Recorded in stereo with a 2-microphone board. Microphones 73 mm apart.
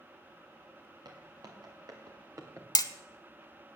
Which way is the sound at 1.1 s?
85° right.